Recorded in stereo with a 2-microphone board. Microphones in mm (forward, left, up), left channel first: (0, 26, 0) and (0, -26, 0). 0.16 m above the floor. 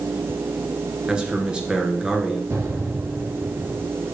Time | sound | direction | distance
1.1 | a man speaking | 15° right (ahead or behind) | 2.5 m
2.5 | an explosion | 65° right (ahead or behind) | 3.5 m